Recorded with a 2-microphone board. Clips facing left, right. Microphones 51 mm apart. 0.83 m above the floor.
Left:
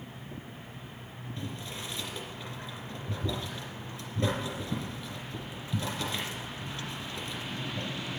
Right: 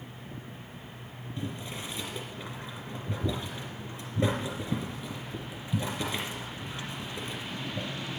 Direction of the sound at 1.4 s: 15° right (ahead or behind).